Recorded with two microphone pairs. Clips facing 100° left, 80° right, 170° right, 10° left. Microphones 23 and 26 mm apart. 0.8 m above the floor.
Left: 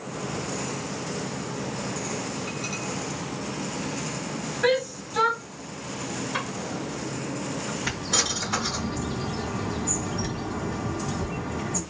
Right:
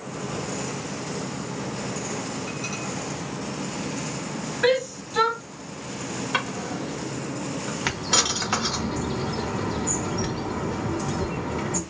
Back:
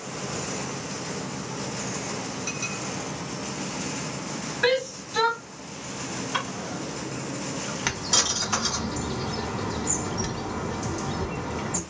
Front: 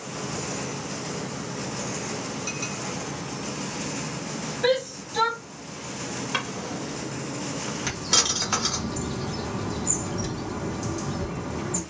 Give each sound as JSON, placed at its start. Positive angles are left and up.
{"t": 4.6, "sound": "a shout", "azimuth_deg": -145, "distance_m": 1.3}
{"t": 6.3, "sound": "a drawer", "azimuth_deg": -55, "distance_m": 1.1}
{"t": 7.8, "sound": "a bird", "azimuth_deg": -115, "distance_m": 0.8}